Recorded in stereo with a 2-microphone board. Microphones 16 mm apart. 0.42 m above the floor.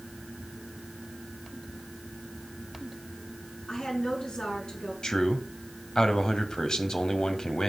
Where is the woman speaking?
70° left (ahead or behind), 5 m.